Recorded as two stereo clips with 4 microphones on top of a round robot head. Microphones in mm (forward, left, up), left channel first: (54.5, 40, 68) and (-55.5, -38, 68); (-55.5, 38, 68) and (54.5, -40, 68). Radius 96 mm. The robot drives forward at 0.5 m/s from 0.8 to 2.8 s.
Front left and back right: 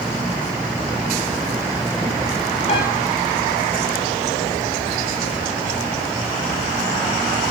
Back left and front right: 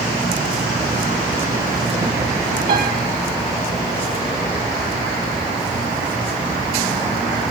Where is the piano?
10° right, 6.5 m.